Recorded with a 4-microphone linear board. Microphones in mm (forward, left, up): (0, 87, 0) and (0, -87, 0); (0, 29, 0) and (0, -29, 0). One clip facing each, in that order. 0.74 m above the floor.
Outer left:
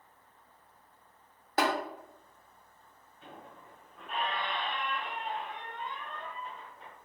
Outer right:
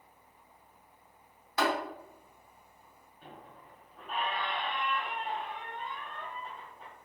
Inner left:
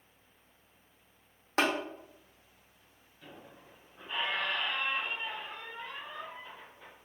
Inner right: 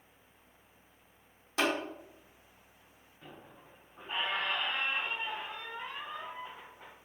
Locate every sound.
1.6 s tapping: 50° left (ahead or behind), 1.2 m
3.2 s a squeak: 40° right (ahead or behind), 1.3 m